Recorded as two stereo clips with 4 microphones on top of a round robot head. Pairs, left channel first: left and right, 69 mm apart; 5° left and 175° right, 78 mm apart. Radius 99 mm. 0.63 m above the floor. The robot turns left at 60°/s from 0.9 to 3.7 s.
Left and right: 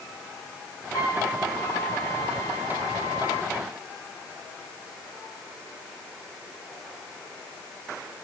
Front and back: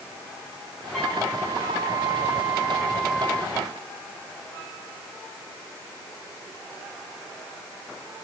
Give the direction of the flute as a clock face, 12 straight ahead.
9 o'clock.